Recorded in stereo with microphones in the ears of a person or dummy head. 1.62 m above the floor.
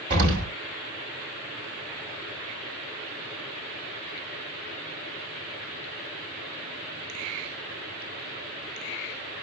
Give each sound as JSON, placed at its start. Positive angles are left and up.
{"t": 0.1, "sound": "an explosion", "side_deg": -30, "distance_m": 1.6}